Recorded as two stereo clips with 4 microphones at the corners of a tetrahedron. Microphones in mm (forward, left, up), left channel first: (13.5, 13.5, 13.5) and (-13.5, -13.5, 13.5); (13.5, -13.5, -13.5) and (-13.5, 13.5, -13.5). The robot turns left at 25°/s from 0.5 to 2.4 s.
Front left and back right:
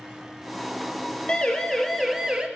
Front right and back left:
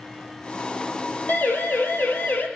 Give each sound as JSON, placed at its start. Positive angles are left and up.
{"t": 1.3, "sound": "a siren", "azimuth_deg": -15, "distance_m": 3.0}